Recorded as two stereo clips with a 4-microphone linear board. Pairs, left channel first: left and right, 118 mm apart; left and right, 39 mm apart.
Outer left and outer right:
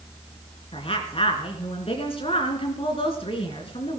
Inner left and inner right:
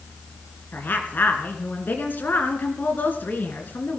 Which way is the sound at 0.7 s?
55° left (ahead or behind).